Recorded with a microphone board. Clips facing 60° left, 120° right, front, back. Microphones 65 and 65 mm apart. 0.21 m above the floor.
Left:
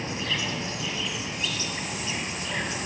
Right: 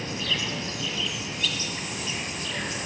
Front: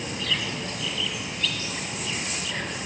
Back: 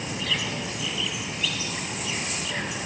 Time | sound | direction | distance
0.0 | an insect | 105° left | 1.6 m